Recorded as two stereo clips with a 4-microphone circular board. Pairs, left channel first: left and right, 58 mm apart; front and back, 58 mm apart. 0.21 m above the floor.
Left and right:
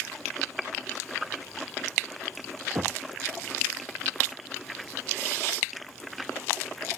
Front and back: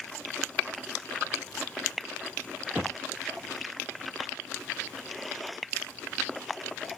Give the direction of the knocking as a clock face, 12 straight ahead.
4 o'clock.